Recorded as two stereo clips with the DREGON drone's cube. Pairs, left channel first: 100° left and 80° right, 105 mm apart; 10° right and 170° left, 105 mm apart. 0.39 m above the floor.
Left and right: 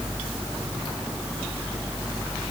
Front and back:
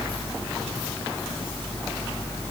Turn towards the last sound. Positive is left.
No sound to turn to.